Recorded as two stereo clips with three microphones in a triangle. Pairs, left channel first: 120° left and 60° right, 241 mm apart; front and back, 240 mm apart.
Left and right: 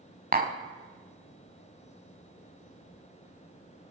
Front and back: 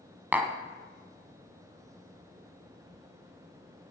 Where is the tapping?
100° right, 0.7 m.